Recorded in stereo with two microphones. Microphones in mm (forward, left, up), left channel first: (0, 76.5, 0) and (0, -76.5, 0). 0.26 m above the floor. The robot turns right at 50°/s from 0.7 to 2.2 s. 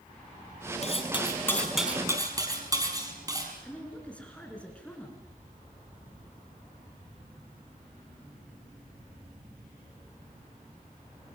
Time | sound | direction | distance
0.8 | cutlery clinking | 135° left | 5 m
3.6 | a woman speaking | 10° left (ahead or behind) | 4 m